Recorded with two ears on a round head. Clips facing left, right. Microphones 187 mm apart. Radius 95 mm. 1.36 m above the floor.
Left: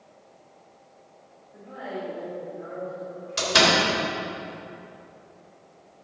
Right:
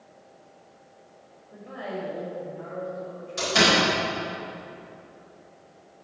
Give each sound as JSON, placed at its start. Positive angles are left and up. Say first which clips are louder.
{"t": 1.5, "sound": "a woman speaking", "louder": "right 1 dB", "side_deg": -75, "distance_m": 3.0}
{"t": 3.4, "sound": "a door slam", "louder": "even", "side_deg": 80, "distance_m": 3.5}